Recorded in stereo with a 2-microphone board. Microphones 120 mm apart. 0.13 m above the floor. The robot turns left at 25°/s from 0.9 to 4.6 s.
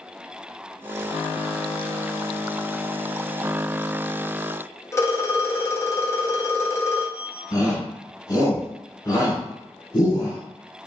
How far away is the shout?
About 1.7 m.